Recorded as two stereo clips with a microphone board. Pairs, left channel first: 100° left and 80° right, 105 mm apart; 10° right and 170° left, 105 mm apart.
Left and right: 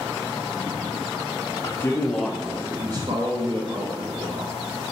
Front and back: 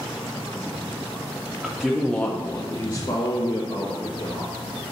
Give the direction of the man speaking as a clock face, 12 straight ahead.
9 o'clock.